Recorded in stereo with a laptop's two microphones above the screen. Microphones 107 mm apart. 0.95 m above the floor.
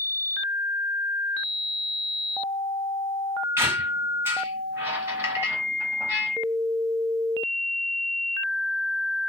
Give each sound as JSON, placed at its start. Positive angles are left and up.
{"t": 3.6, "sound": "a squeak", "side_deg": -25, "distance_m": 1.1}